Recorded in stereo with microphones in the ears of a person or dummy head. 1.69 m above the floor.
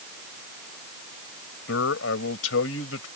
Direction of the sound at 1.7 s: 90° left.